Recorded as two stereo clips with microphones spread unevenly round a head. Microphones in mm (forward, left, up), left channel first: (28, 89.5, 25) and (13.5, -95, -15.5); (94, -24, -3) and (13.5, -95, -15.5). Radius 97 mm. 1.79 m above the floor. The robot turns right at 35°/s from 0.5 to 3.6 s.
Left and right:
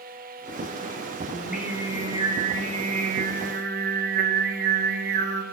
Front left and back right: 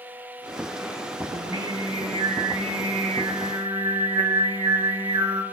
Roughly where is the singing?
Behind.